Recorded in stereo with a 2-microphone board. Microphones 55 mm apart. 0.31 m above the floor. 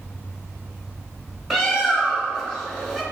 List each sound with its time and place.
1.5 s a bird: 10° right (ahead or behind), 1.1 m